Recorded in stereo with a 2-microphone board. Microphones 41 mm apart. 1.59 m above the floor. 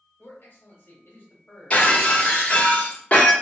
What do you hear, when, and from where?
0.2 s a man speaking: 60° left (ahead or behind), 1.2 m
1.7 s breaking glass: 25° left (ahead or behind), 1.3 m